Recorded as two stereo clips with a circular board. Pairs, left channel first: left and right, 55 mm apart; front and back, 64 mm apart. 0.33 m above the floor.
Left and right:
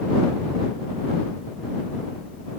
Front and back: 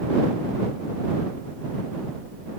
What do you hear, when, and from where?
Only background noise.